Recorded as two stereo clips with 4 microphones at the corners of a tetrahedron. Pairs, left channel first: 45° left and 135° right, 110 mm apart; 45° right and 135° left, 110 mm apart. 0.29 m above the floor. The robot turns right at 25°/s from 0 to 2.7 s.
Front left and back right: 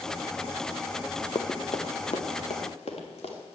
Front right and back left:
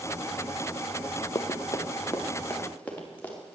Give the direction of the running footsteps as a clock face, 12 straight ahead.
12 o'clock.